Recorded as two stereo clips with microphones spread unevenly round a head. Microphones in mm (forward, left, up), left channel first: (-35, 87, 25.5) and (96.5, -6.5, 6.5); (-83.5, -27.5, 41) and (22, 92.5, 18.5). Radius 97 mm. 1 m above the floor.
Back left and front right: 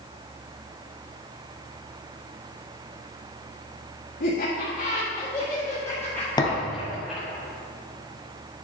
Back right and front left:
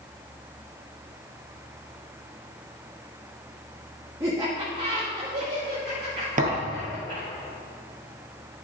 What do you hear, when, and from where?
4.2 s laughter: 120° left, 1.8 m; by 7.3 s 50° left, 3.5 m
6.4 s a thud: 90° left, 1.8 m